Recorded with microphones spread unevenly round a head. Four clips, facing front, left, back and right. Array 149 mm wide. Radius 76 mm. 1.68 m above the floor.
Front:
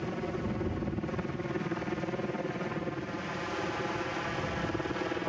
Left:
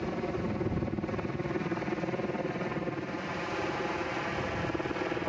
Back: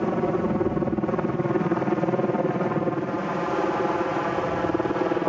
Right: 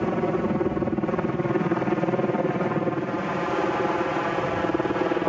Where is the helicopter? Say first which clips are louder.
Right 9 dB, back 11 dB; 140° right.